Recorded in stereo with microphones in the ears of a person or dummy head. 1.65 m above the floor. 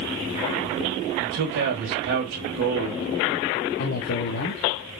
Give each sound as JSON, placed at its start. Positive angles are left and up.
{"t": 1.2, "sound": "a man speaking", "side_deg": -70, "distance_m": 1.6}
{"t": 3.8, "sound": "a man speaking", "side_deg": 50, "distance_m": 0.7}